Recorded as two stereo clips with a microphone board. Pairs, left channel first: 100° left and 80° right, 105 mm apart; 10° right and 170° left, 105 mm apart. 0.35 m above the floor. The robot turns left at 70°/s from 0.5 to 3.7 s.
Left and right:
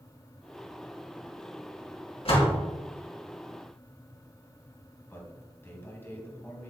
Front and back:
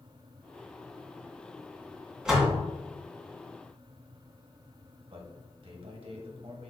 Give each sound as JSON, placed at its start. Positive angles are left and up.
{"t": 2.2, "sound": "a door slam", "azimuth_deg": 85, "distance_m": 2.5}
{"t": 5.1, "sound": "a man speaking", "azimuth_deg": 165, "distance_m": 1.9}